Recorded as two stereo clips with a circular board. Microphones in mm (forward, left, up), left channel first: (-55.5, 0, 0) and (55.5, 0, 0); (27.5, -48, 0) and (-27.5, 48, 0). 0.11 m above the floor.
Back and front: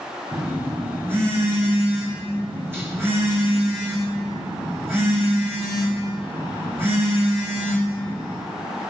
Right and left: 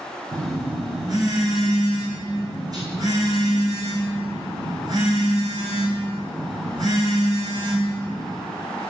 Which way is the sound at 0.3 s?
65° left.